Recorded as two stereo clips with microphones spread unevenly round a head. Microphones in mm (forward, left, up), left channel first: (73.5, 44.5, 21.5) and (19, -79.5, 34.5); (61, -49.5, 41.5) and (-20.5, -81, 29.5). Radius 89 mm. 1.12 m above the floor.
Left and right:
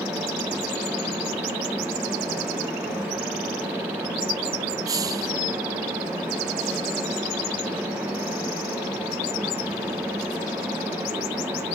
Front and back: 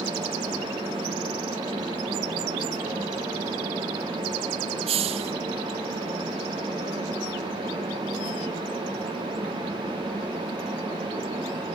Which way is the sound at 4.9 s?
175° left.